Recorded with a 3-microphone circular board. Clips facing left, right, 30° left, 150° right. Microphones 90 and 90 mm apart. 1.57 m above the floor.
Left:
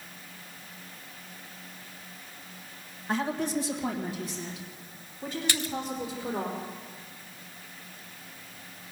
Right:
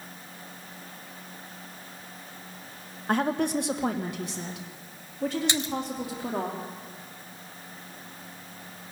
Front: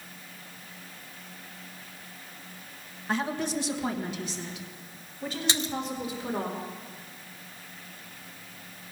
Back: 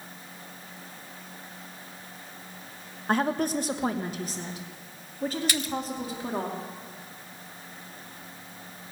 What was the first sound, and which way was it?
A woman speaking, 115° right.